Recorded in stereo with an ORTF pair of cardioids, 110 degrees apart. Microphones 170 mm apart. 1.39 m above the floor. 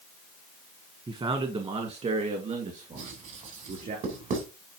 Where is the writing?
60° right, 3.5 m.